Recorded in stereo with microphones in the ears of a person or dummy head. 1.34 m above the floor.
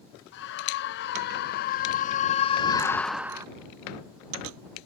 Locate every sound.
0.3 s a scream: 60° left (ahead or behind); by 3.5 s 20° right (ahead or behind)